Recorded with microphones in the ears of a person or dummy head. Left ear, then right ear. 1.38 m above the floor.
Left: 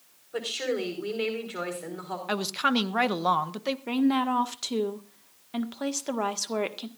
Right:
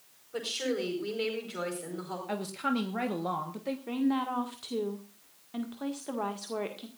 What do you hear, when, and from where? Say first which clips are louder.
0.3 s a woman speaking: left 3 dB; 20° left (ahead or behind), 4.5 m
2.3 s a woman speaking: left 7 dB; 40° left (ahead or behind), 1.2 m
3.9 s a woman speaking: left 5 dB; 80° left, 1.7 m